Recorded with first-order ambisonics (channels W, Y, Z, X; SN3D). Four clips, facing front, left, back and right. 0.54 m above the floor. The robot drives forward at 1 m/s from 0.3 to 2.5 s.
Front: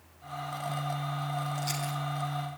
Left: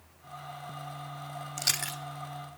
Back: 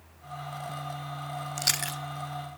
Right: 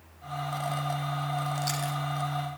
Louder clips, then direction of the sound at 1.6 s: Even, back 4 dB; 155° left.